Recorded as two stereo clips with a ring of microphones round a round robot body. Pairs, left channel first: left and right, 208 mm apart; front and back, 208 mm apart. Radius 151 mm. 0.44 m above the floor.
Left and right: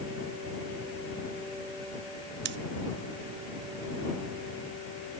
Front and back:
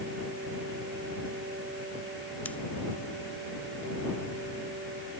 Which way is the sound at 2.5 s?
85° right.